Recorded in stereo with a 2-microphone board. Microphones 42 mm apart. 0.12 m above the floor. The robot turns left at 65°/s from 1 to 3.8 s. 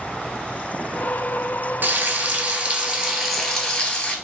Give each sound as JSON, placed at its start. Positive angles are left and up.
{"t": 1.8, "sound": "frying", "azimuth_deg": -80, "distance_m": 0.7}